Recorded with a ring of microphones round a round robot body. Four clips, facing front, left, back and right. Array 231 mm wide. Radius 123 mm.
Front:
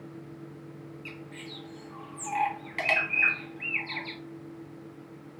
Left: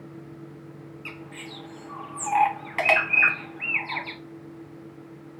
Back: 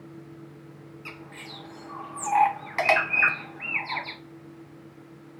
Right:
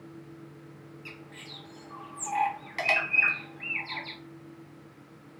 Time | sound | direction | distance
1.1 | a bird | 140° left | 0.8 m